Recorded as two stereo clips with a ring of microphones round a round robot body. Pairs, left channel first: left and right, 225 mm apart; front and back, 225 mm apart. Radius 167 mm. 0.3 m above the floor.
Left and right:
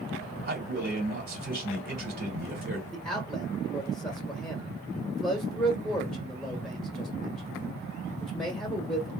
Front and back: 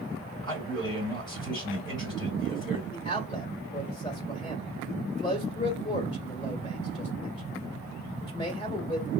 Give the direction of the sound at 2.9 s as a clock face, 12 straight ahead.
12 o'clock.